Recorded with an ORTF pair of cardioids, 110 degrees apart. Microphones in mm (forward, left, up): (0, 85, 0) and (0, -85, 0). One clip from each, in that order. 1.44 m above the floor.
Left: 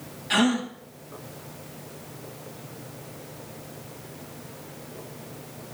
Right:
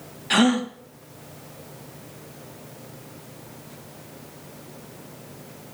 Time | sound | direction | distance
0.3 | a gasp | 30° right | 2.5 m